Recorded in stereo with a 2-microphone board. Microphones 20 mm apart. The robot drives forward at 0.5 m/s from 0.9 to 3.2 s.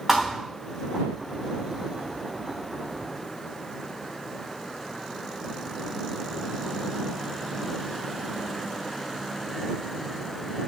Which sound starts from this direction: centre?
A thud, at 0.1 s.